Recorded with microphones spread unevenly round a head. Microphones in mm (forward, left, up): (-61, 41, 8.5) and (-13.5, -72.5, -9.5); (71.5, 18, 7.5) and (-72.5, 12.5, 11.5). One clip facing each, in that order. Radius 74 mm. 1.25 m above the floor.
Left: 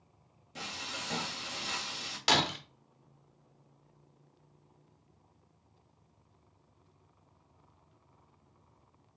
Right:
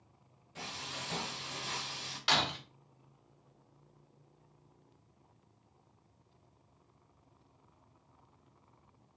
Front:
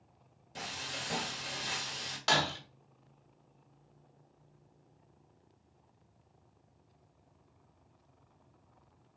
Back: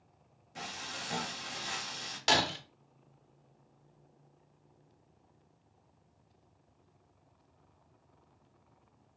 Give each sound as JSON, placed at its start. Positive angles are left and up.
{"t": 0.6, "sound": "frying", "azimuth_deg": 55, "distance_m": 1.8}
{"t": 2.3, "sound": "breaking glass", "azimuth_deg": 120, "distance_m": 1.0}